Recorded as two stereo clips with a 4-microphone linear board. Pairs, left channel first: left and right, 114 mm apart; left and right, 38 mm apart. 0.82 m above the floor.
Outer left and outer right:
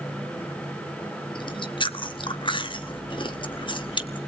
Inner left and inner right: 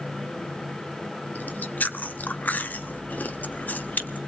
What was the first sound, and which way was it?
Chewing, 45° left (ahead or behind).